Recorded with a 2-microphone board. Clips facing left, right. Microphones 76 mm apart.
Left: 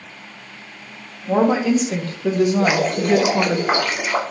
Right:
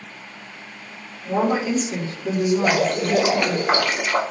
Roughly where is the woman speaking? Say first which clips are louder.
Left 4 dB; left.